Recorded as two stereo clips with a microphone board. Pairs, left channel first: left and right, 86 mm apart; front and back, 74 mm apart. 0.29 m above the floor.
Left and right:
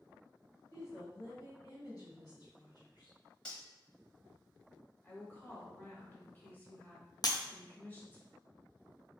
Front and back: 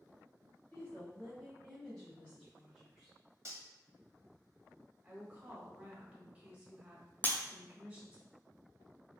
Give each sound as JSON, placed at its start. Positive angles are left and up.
{"t": 0.7, "sound": "a woman speaking", "azimuth_deg": 65, "distance_m": 1.7}
{"t": 3.5, "sound": "cutlery clinking", "azimuth_deg": 165, "distance_m": 0.9}
{"t": 5.0, "sound": "a woman speaking", "azimuth_deg": 130, "distance_m": 1.2}
{"t": 7.2, "sound": "breaking glass", "azimuth_deg": 60, "distance_m": 0.7}